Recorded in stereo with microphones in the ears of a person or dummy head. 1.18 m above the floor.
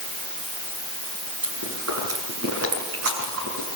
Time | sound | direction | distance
1.4 | chewing | 65° right (ahead or behind) | 6.5 m